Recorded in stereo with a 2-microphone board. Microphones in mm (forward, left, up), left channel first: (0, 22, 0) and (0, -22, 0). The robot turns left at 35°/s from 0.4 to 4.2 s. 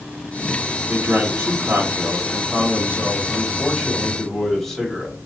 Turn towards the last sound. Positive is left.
turn(degrees=165)